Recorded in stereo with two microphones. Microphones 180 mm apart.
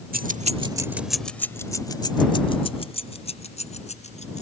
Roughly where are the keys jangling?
Right.